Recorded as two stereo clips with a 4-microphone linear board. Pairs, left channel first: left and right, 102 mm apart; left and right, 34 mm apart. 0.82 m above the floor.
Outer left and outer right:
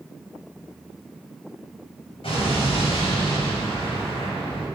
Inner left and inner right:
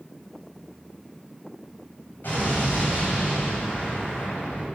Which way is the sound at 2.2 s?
70° left (ahead or behind).